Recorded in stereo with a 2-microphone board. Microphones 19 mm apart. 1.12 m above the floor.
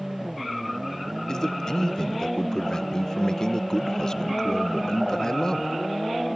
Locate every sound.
1.3 s a man speaking: 35° left (ahead or behind), 0.7 m